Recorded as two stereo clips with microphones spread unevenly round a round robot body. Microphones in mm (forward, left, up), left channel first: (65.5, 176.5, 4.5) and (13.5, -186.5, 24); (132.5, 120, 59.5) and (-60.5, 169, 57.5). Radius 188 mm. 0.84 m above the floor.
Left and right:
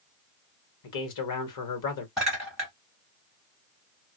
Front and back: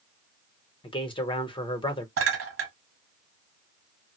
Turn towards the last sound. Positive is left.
turn(degrees=175)